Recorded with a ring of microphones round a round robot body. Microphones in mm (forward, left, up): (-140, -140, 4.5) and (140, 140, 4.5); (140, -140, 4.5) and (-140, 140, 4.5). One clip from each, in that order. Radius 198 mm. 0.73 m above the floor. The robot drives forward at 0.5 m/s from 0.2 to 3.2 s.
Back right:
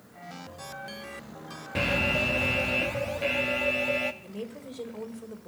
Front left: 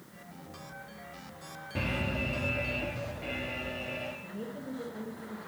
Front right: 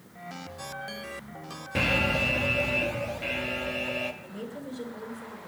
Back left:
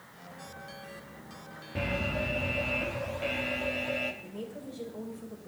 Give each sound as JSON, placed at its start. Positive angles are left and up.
{"t": 1.8, "sound": "an alarm", "azimuth_deg": -85, "distance_m": 1.0}
{"t": 4.2, "sound": "a woman speaking", "azimuth_deg": -135, "distance_m": 2.5}